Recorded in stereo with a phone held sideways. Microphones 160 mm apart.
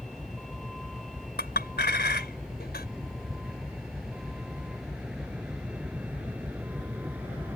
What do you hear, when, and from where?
0.0 s a vehicle: centre (ahead or behind); by 7.6 s 10° right (ahead or behind)
1.4 s a clink: 80° left